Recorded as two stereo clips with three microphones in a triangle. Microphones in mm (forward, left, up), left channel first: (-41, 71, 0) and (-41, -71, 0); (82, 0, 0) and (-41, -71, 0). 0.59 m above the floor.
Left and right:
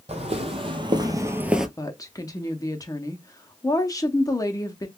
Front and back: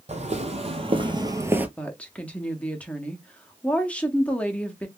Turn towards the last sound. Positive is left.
turn(degrees=95)